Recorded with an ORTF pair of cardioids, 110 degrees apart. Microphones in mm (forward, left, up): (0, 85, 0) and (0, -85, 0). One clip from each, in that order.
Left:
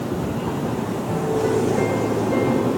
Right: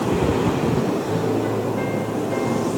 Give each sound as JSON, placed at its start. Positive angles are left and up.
{"t": 1.1, "sound": "a piano", "azimuth_deg": 10, "distance_m": 6.5}